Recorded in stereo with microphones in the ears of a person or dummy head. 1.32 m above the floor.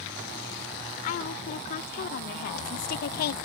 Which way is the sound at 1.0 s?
50° left (ahead or behind).